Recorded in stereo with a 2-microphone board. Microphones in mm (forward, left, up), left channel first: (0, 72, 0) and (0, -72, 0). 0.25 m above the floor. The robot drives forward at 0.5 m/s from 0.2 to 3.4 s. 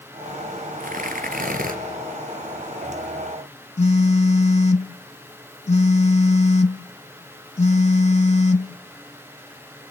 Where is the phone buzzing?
50° left (ahead or behind), 0.7 m.